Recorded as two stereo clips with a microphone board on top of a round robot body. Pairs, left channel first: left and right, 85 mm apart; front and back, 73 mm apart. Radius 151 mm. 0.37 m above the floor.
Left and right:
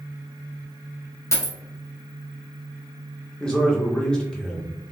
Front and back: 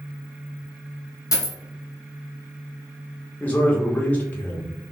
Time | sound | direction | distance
1.3 | a dropped coin | 35° left | 0.9 m
3.4 | a man speaking | 25° left | 1.0 m